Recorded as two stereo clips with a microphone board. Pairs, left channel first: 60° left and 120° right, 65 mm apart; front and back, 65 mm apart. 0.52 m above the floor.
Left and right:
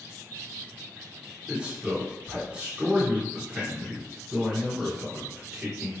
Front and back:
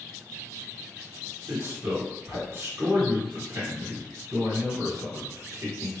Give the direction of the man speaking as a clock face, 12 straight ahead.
6 o'clock.